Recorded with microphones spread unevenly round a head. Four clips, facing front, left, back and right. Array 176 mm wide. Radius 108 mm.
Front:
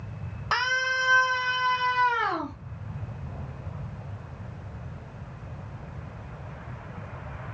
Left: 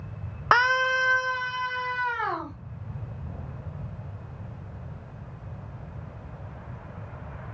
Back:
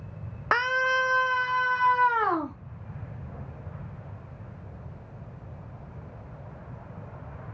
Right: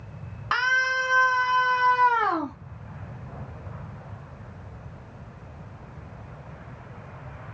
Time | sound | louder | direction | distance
0.5 | a scream | left 3 dB, back 2 dB | 120° left | 0.7 m